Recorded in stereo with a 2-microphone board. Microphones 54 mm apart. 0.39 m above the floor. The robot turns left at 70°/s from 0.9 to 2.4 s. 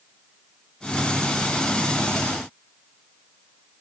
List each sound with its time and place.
Only background noise.